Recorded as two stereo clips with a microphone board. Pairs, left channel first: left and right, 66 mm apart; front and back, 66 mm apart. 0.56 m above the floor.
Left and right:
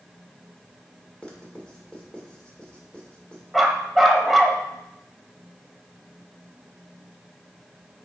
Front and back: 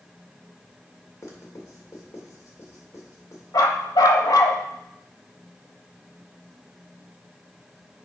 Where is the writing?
20° left, 1.9 m.